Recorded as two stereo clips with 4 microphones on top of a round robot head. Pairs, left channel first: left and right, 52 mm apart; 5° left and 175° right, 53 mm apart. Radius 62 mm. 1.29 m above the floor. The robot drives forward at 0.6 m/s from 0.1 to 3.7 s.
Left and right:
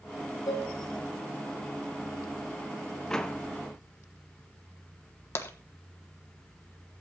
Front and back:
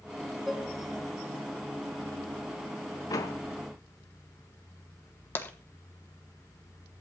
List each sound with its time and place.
0.5 s dishes clattering: 95° left, 1.3 m; by 0.7 s 100° left, 1.3 m
3.1 s a door slam: 15° left, 1.0 m; by 3.4 s 20° left, 0.8 m
5.3 s tapping: 55° left, 1.2 m